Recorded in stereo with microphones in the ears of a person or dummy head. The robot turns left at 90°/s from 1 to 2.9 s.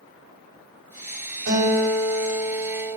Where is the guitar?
60° right, 0.9 m; by 3.0 s 170° left, 0.9 m.